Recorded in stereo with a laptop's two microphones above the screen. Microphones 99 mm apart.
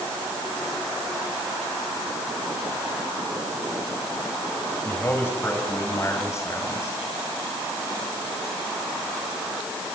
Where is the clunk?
I don't hear a clunk.